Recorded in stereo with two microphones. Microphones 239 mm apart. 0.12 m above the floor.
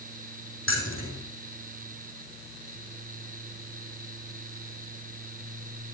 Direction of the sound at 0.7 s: 60° left (ahead or behind).